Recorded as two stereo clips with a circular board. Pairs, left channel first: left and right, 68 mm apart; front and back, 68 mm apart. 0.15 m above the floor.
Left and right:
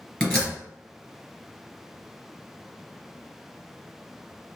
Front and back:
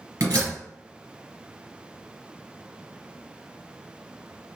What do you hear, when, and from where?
0.2 s a door slam: 160° left, 1.9 m